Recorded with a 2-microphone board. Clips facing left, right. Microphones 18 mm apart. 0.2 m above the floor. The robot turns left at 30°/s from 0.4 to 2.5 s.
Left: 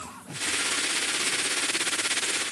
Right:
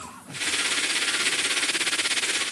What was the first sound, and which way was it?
Only background noise.